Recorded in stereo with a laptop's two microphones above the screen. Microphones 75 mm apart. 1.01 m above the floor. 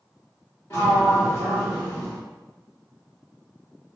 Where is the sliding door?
35° left (ahead or behind), 1.1 m.